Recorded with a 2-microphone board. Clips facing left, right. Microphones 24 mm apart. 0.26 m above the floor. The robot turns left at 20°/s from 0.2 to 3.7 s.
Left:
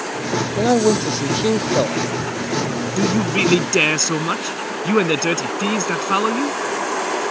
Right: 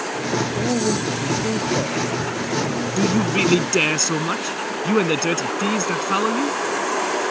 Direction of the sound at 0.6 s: 80° left.